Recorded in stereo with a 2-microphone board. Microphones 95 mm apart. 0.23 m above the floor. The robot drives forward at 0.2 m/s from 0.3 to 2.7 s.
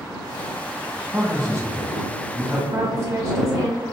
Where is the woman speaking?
35° right (ahead or behind), 1.3 m.